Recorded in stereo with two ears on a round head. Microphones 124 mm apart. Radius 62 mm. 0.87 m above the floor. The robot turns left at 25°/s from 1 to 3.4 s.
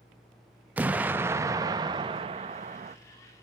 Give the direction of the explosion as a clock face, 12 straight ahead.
12 o'clock.